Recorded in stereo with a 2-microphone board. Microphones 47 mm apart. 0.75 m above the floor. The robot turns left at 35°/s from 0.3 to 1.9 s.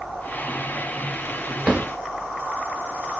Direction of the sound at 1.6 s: 25° right (ahead or behind).